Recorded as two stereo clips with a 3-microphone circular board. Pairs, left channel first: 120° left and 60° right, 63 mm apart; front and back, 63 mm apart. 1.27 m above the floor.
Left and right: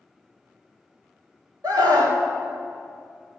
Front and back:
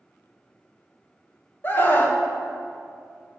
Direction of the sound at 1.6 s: 55° right.